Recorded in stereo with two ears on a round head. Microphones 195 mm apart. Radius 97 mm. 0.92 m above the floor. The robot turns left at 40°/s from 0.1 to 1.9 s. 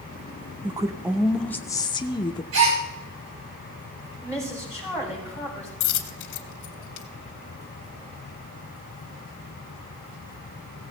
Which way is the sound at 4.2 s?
15° right (ahead or behind).